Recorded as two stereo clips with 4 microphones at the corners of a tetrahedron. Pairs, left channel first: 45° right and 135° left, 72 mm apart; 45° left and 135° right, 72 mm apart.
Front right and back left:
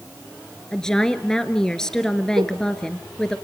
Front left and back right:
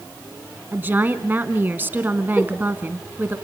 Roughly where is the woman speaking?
Behind right.